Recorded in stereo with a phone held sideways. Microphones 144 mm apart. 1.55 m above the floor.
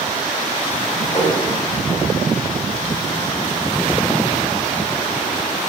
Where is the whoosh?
35° left (ahead or behind), 7.5 m.